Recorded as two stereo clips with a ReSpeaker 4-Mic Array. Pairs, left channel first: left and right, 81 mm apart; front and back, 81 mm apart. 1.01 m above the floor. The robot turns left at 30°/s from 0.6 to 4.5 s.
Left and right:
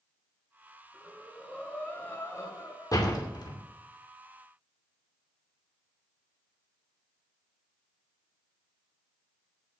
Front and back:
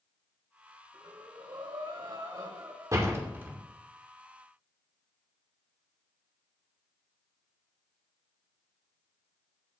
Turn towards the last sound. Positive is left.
turn(degrees=85)